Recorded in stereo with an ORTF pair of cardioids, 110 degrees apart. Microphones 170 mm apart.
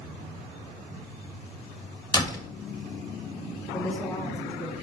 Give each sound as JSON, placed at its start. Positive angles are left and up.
{"t": 2.1, "sound": "a door slam", "azimuth_deg": 25, "distance_m": 1.7}
{"t": 3.7, "sound": "a woman speaking", "azimuth_deg": 20, "distance_m": 2.5}